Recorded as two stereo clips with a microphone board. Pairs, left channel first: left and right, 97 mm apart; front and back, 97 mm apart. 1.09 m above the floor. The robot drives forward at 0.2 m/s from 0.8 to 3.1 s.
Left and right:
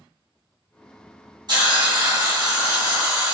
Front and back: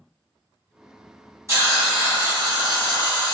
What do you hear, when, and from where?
1.5 s a hiss: 125° right, 1.1 m; by 3.4 s 140° right, 1.3 m